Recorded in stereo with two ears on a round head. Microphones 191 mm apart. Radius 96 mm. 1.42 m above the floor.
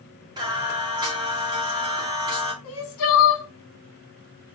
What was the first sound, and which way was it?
Singing, 20° right (ahead or behind).